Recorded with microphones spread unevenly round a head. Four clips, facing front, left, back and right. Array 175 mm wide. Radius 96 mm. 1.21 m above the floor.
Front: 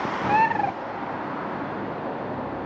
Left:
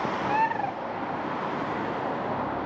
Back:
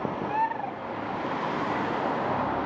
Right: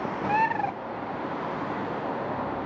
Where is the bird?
15° right.